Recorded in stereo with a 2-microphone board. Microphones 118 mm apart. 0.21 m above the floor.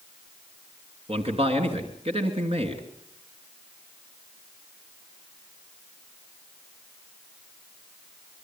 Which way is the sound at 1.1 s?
55° right (ahead or behind).